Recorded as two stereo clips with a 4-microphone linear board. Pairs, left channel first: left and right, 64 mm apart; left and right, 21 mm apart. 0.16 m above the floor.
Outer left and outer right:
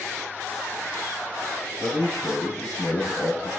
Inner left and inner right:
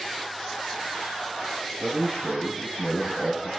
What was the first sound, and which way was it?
A man speaking, 60° left (ahead or behind).